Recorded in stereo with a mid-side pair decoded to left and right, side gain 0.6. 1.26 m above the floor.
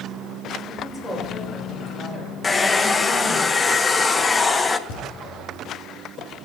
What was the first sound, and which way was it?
A woman speaking, 15° left.